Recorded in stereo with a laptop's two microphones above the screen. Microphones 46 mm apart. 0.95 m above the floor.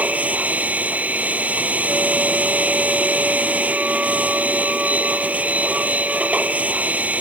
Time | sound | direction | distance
0.0 | a machine running | 30° right (ahead or behind) | ?